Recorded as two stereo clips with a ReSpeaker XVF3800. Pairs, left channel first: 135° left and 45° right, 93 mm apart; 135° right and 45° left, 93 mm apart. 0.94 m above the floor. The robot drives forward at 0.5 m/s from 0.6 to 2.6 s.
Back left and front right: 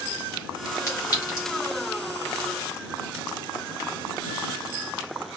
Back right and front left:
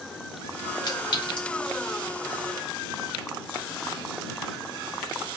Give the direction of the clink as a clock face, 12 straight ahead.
6 o'clock.